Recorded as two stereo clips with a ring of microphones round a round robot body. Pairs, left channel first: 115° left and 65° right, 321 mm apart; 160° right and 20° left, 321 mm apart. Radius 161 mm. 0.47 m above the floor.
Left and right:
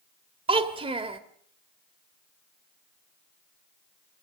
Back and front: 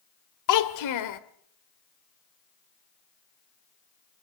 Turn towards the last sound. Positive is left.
turn(degrees=-140)